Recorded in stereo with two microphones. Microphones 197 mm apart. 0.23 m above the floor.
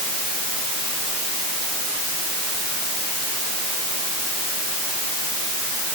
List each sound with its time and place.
Only background noise.